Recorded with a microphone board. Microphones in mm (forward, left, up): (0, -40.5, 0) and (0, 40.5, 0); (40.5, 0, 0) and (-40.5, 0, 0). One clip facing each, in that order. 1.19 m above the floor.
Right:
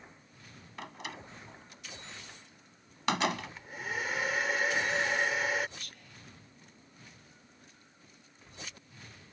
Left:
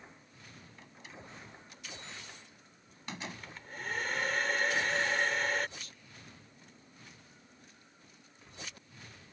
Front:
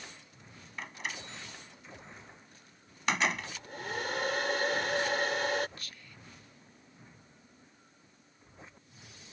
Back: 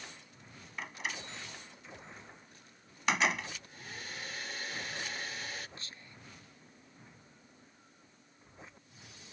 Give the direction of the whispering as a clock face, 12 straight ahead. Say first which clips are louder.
Right 1 dB, front 1 dB; 4 o'clock.